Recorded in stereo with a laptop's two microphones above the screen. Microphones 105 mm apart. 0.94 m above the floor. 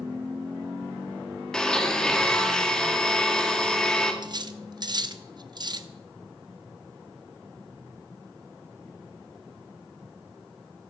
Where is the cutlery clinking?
45° right (ahead or behind), 0.8 m.